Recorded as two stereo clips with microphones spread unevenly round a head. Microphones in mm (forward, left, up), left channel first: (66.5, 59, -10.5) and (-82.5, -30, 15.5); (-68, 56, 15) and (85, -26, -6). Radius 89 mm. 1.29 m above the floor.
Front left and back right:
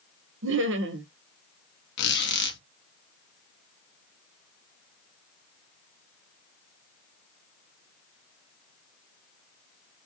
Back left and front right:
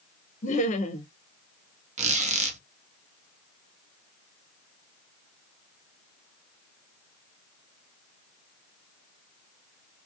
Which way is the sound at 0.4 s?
155° right.